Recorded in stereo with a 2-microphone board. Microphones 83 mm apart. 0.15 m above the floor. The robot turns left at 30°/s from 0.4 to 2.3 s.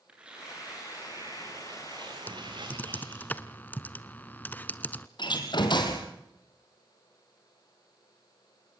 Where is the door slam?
65° left (ahead or behind), 3.5 m.